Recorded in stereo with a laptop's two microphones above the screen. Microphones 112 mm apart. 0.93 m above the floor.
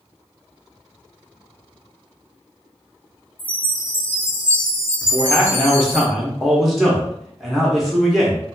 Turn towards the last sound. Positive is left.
turn(degrees=0)  # may be behind; listen again after turning